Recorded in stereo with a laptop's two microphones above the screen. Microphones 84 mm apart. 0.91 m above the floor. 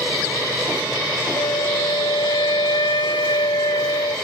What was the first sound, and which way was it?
A flute, 75° left (ahead or behind).